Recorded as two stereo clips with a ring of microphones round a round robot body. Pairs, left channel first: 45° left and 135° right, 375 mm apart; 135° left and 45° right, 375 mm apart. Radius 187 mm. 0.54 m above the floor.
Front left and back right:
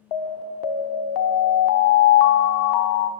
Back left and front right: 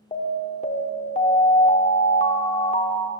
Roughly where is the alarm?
Ahead left.